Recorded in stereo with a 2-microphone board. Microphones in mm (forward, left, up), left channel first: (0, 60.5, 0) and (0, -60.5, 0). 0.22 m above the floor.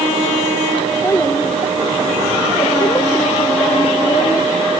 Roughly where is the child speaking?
Left.